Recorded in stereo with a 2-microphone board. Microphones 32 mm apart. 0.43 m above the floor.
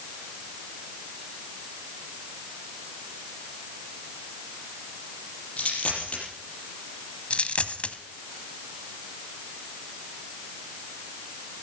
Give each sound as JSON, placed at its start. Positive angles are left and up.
{"t": 5.6, "sound": "a dropped coin", "side_deg": 40, "distance_m": 5.5}
{"t": 7.3, "sound": "a dropped coin", "side_deg": 40, "distance_m": 1.1}